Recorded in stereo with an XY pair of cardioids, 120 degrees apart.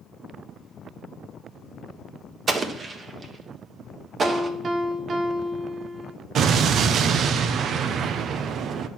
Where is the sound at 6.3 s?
55° right, 0.7 m.